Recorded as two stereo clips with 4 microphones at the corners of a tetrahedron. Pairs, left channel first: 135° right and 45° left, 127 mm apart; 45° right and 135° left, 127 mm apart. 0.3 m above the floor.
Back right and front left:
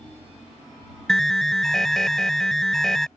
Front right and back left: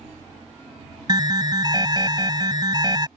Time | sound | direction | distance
1.1 | an alarm | 140° left | ?